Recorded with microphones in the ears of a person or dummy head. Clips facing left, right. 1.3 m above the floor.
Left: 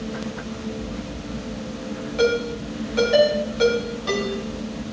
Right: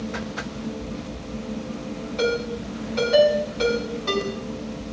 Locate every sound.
2.2 s a ringtone: 5° left (ahead or behind), 8.5 m